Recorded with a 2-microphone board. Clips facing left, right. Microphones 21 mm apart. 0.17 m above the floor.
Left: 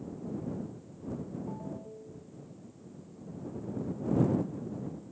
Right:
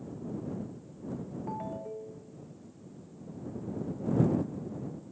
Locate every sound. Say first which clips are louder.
1.5 s a ringtone: right 4 dB; 45° right (ahead or behind)